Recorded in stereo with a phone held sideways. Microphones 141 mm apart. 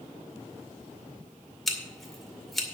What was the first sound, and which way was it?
Scissors, centre (ahead or behind).